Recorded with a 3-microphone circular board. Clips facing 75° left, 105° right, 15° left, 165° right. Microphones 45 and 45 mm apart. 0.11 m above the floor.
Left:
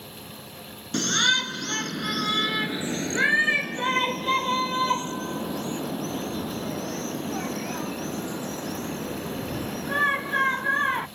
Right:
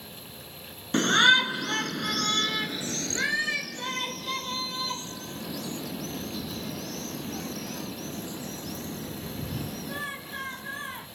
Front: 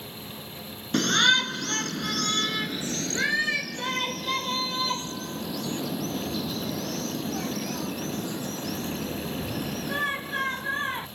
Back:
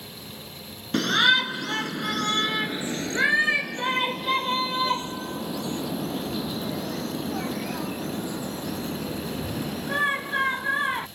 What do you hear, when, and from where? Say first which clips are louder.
0.9 s a shout: right 4 dB, back 1 dB; 85° right; by 11.1 s 125° left